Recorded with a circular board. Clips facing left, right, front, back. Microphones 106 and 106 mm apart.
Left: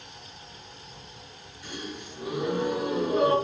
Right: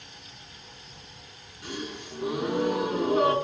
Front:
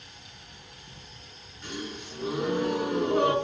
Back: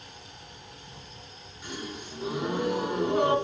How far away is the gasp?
About 4.5 m.